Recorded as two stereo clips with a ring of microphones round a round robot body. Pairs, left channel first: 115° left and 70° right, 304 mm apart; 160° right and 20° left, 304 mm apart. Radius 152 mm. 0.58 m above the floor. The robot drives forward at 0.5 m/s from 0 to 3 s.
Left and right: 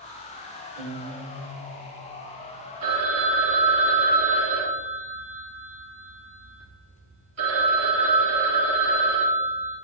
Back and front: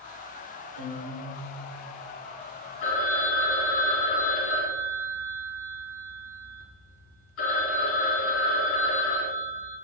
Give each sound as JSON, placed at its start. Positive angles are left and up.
{"t": 0.8, "sound": "a guitar", "azimuth_deg": 45, "distance_m": 1.2}
{"t": 2.8, "sound": "a phone ringing", "azimuth_deg": -105, "distance_m": 1.9}